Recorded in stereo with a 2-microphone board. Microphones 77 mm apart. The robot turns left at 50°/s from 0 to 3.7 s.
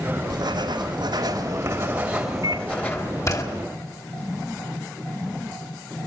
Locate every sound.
0.3 s writing: 75° right, 3 m; by 3.4 s 130° left, 3 m
2.4 s a microwave: 50° right (ahead or behind), 0.9 m; by 2.7 s 60° right (ahead or behind), 0.9 m